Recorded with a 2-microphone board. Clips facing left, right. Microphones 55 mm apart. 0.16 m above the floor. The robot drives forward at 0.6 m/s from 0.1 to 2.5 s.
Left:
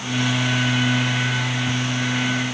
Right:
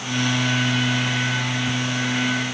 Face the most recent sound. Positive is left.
No sound to turn to.